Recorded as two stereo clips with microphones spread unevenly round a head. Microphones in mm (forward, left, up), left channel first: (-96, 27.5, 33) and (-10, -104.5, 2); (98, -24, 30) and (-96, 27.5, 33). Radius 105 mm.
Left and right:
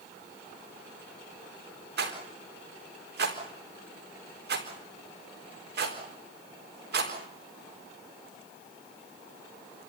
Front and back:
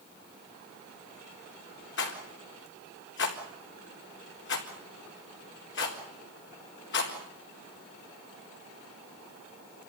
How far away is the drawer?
I don't hear a drawer.